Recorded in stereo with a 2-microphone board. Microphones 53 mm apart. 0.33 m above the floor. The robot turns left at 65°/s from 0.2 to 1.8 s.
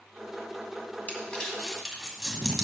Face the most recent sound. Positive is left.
turn(degrees=-5)  # may be behind; listen again after turning